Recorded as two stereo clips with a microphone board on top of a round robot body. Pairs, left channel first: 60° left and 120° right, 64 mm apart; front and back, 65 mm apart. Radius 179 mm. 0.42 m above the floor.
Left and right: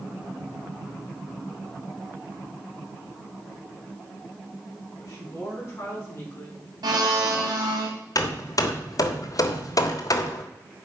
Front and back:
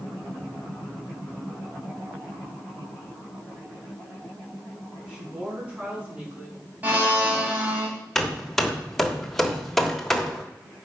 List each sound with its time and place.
5.0 s a woman speaking: 100° left, 6 m; by 6.6 s 115° left, 7.5 m
6.8 s a blender: 115° right, 3 m
8.2 s hammering: 85° left, 1.2 m